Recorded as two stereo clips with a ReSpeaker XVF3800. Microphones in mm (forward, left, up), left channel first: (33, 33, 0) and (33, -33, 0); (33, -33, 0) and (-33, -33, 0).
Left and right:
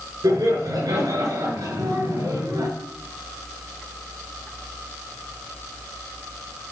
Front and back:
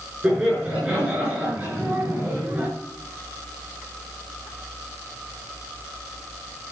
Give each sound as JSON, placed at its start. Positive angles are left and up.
{"t": 0.2, "sound": "laughter", "azimuth_deg": -100, "distance_m": 5.0}